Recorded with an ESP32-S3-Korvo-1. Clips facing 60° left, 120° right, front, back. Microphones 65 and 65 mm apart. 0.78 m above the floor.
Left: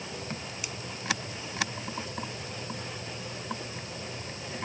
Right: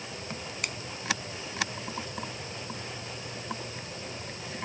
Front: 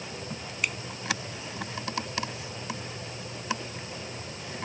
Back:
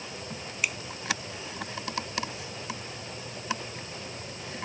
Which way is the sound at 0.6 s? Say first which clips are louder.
Right 8 dB, even; 95° right.